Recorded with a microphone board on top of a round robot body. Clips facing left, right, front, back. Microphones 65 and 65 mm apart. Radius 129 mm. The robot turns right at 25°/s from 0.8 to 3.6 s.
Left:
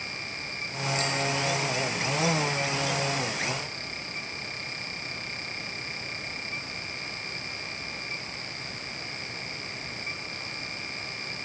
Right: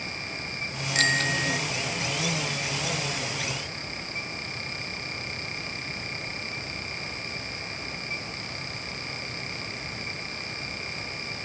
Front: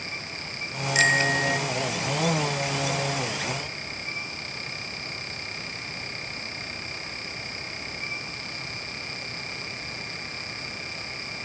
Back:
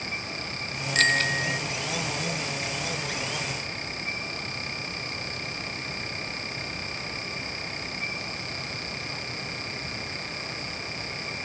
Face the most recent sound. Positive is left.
turn(degrees=-15)